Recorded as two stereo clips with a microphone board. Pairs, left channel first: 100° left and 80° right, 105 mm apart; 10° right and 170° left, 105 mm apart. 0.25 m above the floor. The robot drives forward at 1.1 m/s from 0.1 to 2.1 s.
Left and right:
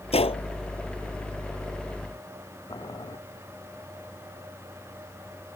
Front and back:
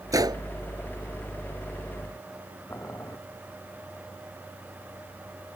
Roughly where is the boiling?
Ahead left.